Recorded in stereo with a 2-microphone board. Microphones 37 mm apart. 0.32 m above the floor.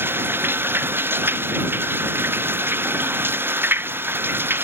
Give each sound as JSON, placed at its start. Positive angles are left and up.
{"t": 0.0, "sound": "running water", "side_deg": -85}